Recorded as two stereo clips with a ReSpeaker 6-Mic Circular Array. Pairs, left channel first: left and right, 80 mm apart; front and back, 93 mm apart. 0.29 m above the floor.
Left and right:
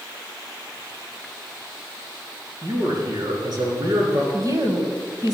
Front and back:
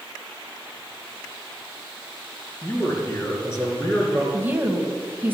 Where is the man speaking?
55° right, 4 m; by 4.2 s 65° right, 4 m.